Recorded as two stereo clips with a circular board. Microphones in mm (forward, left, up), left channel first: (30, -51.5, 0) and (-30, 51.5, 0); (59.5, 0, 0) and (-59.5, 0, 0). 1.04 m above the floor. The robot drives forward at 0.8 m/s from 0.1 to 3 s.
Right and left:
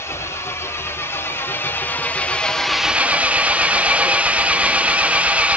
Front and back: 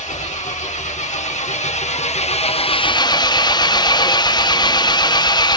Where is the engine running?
5° left, 2.5 m; by 5.6 s 40° left, 0.6 m.